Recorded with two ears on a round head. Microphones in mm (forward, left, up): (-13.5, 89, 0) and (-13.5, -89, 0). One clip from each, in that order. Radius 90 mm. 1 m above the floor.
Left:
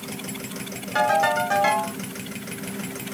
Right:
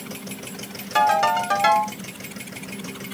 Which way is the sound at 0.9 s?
35° right (ahead or behind).